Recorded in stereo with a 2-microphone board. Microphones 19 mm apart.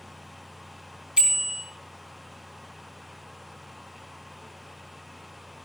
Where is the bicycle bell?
55° right (ahead or behind), 3.5 m.